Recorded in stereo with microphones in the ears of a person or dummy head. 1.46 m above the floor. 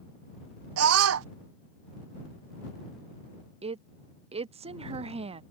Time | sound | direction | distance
0.8 | a scream | 85° right | ?
3.6 | a woman speaking | 30° right (ahead or behind) | ?